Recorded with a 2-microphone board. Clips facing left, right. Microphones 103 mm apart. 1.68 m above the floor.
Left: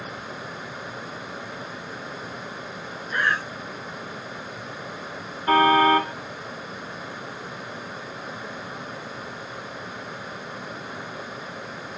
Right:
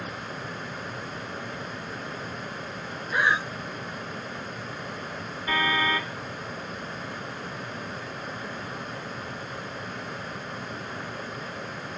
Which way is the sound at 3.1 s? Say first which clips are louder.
Even; 10° right (ahead or behind).